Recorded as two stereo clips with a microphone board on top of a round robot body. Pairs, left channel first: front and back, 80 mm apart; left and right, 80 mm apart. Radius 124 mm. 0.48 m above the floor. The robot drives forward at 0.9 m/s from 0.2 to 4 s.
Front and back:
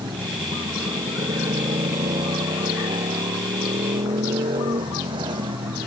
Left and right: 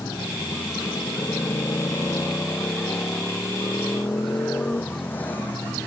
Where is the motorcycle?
145° left; by 5.9 s 160° left.